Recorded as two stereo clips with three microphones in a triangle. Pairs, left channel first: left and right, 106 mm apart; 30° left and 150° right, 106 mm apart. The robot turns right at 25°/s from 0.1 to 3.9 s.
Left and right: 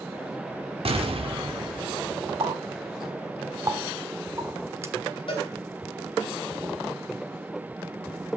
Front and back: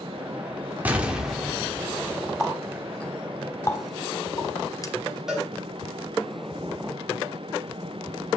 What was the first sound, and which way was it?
An explosion, 75° right.